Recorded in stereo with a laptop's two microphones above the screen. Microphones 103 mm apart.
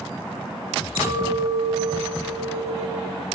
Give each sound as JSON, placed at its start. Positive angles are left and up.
{"t": 0.9, "sound": "a clink", "side_deg": -55, "distance_m": 5.0}